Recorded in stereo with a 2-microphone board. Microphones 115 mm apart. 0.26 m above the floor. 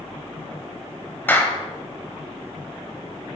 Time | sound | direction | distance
1.3 | a clap | 15° left (ahead or behind) | 0.8 m